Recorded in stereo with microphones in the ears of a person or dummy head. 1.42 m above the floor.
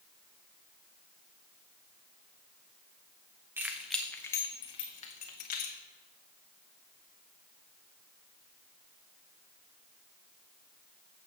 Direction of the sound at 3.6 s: 10° right (ahead or behind).